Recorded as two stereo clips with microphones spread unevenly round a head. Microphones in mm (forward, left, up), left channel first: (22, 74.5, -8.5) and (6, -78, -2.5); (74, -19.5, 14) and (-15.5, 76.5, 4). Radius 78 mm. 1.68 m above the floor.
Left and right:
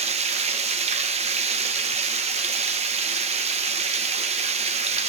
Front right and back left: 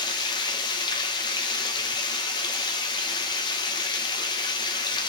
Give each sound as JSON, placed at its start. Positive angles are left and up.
{"t": 0.0, "sound": "running water", "azimuth_deg": -85, "distance_m": 0.9}